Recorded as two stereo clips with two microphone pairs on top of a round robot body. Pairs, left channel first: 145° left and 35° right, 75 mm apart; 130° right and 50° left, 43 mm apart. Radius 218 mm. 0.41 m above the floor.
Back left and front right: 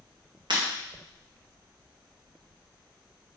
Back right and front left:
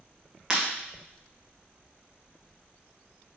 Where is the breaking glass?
25° right, 1.6 m.